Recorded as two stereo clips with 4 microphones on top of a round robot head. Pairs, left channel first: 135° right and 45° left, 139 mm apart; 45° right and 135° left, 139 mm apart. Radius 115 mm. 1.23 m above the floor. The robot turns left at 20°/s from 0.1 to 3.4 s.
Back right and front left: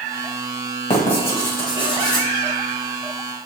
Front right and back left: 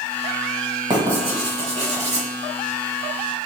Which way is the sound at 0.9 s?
170° right.